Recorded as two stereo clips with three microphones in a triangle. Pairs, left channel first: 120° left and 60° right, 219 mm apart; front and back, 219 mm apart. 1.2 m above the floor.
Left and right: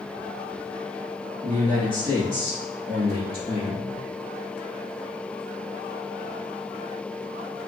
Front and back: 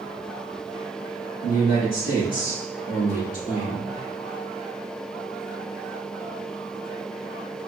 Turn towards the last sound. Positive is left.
turn(degrees=55)